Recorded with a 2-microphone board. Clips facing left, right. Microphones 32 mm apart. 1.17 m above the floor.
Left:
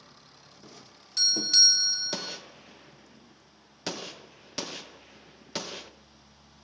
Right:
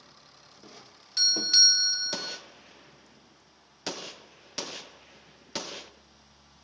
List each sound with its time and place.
0.6 s a doorbell: 15° right (ahead or behind), 0.7 m
2.1 s a gunshot: centre (ahead or behind), 0.6 m